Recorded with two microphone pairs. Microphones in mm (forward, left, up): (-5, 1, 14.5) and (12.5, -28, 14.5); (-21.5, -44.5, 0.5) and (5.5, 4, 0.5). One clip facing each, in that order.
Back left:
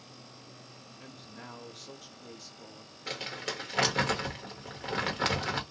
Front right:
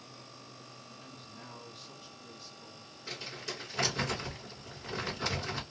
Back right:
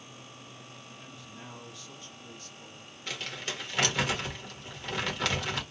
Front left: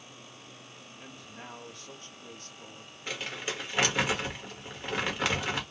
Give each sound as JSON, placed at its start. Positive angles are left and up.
{"t": 1.0, "sound": "a woman speaking", "azimuth_deg": 110, "distance_m": 1.3}
{"t": 3.1, "sound": "crumpling", "azimuth_deg": 130, "distance_m": 1.2}